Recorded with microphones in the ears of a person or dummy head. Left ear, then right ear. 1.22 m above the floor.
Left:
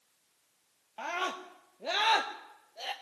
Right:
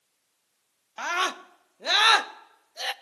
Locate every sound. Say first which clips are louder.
1.0 s a scream: right 7 dB; 60° right (ahead or behind), 1.0 m